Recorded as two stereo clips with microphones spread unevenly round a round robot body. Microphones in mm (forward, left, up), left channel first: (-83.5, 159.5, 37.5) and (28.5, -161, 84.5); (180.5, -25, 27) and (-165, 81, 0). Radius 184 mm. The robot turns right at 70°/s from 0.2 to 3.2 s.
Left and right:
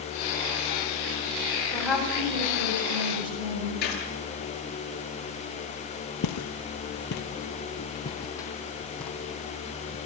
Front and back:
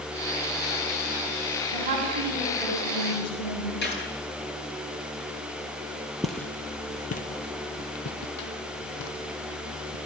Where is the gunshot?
45° left, 10 m.